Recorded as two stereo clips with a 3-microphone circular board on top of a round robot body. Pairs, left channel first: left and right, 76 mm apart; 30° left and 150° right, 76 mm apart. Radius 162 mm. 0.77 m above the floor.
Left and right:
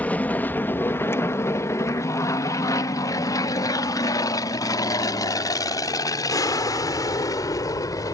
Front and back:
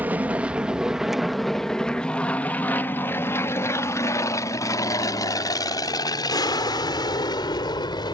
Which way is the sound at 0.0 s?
150° left.